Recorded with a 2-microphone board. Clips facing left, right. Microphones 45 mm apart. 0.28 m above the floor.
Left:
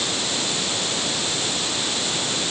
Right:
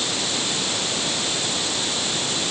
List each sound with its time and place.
Only background noise.